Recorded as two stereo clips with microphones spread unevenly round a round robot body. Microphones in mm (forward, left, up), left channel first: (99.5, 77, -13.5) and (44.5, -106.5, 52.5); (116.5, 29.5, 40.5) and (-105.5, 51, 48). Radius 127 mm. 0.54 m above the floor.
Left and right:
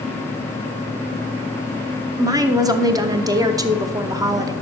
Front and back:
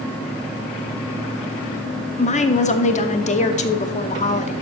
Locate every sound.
2.2 s a woman speaking: 15° right, 0.9 m